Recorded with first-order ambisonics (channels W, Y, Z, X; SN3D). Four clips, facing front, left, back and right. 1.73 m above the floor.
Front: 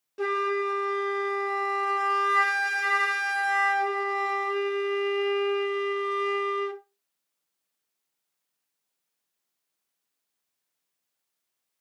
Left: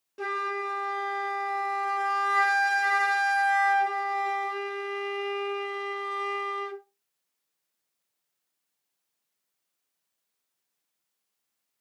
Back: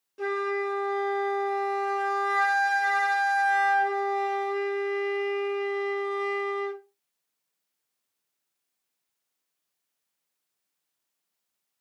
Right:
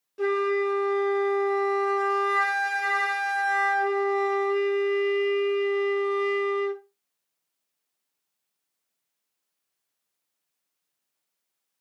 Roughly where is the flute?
Ahead.